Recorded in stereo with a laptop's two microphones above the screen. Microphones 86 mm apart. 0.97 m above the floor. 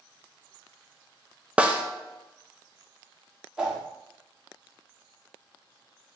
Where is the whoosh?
5° right (ahead or behind), 0.7 m.